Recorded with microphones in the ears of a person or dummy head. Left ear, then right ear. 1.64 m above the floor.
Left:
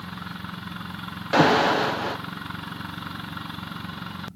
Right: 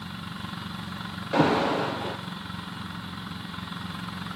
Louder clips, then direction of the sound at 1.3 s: Left 5 dB; 40° left (ahead or behind).